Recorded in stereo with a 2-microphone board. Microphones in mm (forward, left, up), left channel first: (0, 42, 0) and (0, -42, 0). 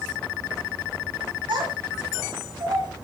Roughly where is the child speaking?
Right.